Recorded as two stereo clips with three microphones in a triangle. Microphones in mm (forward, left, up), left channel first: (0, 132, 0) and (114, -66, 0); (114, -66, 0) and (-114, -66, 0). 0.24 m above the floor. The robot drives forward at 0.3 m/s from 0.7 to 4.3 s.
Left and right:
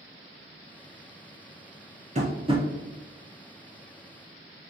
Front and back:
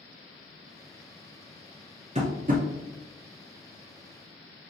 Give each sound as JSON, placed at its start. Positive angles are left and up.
{"t": 2.1, "sound": "tapping", "azimuth_deg": -115, "distance_m": 0.6}